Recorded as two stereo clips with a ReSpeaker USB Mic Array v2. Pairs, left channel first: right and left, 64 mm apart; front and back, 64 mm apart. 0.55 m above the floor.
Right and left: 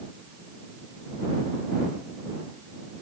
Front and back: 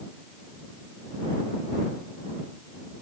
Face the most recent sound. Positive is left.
No sound to turn to.